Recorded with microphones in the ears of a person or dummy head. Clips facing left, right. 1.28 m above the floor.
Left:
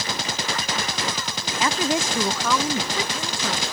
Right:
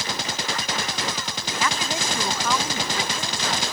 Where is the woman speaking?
20° left (ahead or behind); by 3.6 s 80° left.